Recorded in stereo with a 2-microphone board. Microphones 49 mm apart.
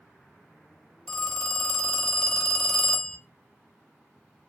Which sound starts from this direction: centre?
A phone ringing, at 1.1 s.